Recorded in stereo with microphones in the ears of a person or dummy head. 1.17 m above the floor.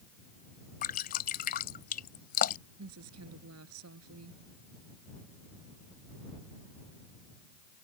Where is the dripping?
45° left (ahead or behind).